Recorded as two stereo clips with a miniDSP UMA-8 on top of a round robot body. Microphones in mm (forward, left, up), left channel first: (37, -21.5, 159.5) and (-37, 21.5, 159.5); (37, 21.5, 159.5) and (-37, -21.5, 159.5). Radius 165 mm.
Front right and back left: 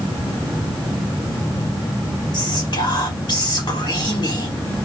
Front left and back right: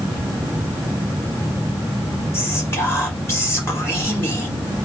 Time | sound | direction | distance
2.3 | whispering | 20° right | 2.5 m